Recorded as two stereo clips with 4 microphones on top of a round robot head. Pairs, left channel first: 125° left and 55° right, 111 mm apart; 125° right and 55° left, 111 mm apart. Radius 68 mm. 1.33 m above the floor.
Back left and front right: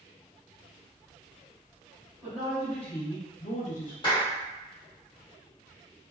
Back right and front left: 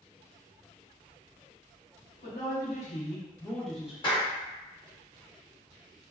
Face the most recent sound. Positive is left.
turn(degrees=180)